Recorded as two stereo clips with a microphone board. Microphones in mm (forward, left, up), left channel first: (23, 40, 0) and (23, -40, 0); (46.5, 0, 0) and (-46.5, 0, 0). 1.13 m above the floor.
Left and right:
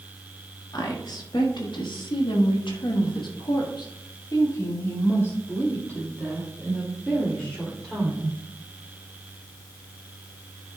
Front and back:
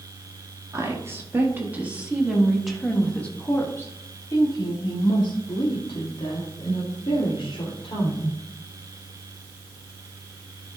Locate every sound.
0.7 s a woman speaking: 120° left, 1.8 m; by 8.4 s 5° left, 3 m